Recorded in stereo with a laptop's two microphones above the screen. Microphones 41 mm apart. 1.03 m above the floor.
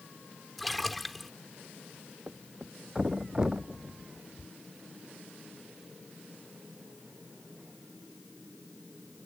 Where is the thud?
15° right (ahead or behind).